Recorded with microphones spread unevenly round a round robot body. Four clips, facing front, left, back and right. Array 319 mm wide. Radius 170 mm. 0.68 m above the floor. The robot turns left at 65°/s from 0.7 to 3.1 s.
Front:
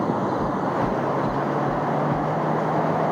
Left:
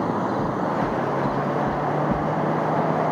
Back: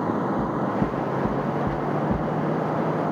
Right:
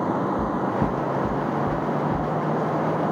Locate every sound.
0.4 s knocking: 120° right, 2 m; by 2.3 s 140° left, 2 m